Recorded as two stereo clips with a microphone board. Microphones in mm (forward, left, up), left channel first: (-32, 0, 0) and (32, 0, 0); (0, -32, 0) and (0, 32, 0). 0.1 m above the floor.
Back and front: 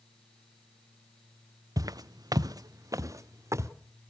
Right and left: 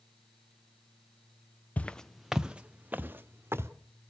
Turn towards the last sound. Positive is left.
turn(degrees=40)